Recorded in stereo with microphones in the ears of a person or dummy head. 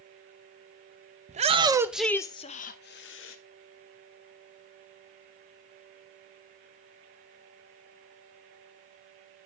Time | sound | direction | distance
1.3 | a shout | 35° right (ahead or behind) | 0.8 m